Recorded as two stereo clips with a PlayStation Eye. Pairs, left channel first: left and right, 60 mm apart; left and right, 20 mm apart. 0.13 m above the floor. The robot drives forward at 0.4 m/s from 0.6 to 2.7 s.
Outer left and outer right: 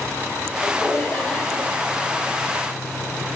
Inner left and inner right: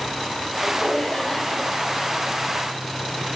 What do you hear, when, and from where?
0.6 s laughter: 25° left (ahead or behind), 5 m; by 1.6 s 20° left (ahead or behind), 5 m